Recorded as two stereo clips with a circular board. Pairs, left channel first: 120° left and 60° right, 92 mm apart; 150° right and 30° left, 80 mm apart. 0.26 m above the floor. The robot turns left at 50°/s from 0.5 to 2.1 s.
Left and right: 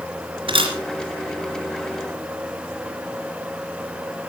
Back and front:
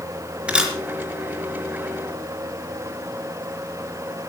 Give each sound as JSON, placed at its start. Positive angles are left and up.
{"t": 0.5, "sound": "a camera shutter", "azimuth_deg": -45, "distance_m": 3.5}